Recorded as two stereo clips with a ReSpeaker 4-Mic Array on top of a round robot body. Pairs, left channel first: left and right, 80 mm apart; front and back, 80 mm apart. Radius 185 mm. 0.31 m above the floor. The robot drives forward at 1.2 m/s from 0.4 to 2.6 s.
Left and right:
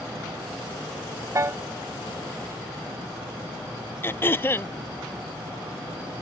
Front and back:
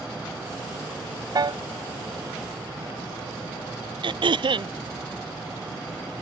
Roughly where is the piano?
Behind right.